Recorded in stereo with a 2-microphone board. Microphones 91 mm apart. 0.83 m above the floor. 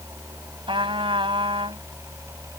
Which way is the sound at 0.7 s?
85° right.